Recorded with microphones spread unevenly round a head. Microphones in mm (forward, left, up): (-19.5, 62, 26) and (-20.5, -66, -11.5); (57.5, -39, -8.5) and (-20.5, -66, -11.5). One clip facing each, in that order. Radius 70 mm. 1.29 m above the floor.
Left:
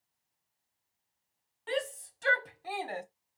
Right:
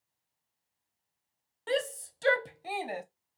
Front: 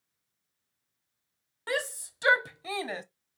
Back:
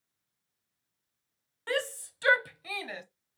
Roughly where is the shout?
Ahead right.